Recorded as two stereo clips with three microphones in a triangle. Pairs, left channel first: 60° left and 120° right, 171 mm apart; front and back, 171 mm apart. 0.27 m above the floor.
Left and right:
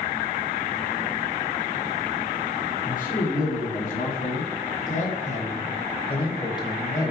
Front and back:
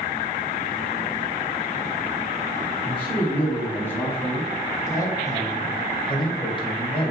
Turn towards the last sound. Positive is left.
turn(degrees=0)